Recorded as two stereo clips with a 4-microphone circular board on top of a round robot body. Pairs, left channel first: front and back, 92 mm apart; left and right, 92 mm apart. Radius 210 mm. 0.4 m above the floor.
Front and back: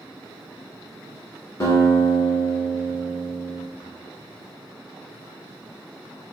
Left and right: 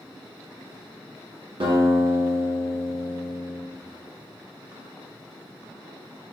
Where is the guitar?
60° right, 0.8 m.